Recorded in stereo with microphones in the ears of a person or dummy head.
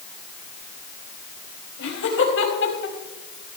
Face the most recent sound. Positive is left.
turn(degrees=65)  # may be behind; listen again after turning